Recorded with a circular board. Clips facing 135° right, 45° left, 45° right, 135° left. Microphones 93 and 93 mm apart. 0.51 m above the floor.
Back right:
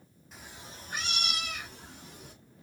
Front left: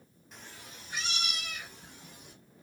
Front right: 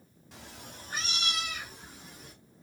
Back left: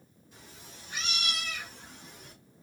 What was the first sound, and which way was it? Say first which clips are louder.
A cat meowing: back right 2 dB, front right 5 dB; 45° right.